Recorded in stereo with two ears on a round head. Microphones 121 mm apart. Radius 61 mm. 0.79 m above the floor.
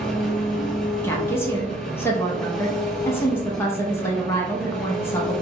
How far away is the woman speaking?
About 0.7 m.